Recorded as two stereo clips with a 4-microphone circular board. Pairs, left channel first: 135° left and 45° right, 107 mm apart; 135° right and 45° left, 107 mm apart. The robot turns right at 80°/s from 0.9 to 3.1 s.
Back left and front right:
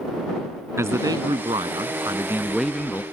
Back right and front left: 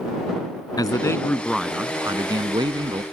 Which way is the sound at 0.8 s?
100° right.